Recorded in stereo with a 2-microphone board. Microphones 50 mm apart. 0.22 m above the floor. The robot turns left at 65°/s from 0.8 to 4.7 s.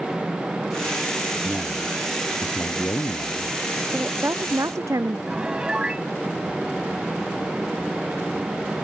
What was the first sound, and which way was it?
A man speaking, 140° right.